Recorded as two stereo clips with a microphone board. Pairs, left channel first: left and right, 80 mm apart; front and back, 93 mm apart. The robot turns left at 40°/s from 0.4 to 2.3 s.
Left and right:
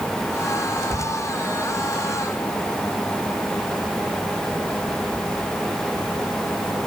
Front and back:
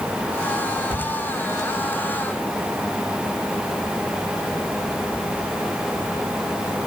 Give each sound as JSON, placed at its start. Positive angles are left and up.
{"t": 0.9, "sound": "a cupboard door", "azimuth_deg": 165, "distance_m": 5.5}